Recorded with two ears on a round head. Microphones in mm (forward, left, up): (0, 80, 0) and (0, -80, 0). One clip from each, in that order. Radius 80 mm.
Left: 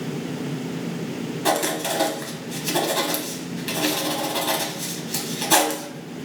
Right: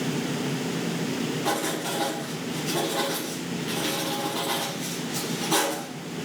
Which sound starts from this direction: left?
Writing, at 1.4 s.